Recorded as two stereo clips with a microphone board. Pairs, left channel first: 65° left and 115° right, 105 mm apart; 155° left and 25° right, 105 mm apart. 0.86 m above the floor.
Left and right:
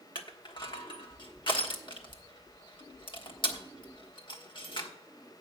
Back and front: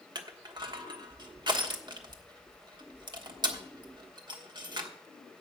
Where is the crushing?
25° left, 1.3 m.